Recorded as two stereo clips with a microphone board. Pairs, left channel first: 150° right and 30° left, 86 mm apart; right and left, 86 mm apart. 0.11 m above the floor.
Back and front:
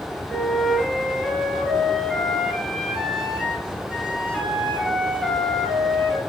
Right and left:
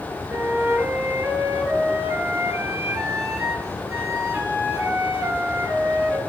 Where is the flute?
135° left, 1.5 m.